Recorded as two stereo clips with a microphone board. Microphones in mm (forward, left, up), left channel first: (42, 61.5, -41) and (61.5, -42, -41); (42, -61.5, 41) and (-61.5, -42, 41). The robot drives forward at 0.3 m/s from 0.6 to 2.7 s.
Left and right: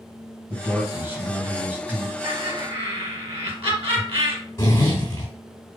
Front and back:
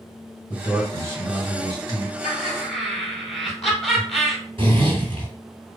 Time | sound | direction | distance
0.5 | a man speaking | 135° right | 1.7 m
2.2 | laughter | 95° right | 2.5 m
4.6 | a zipper | 155° left | 2.5 m